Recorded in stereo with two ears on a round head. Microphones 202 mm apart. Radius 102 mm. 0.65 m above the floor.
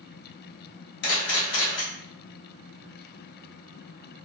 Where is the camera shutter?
55° left (ahead or behind), 1.0 m.